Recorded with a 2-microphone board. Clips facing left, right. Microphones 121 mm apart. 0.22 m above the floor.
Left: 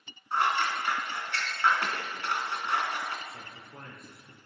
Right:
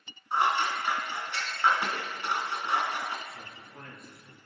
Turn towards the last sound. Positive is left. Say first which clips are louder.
# even
turn(degrees=55)  # may be behind; listen again after turning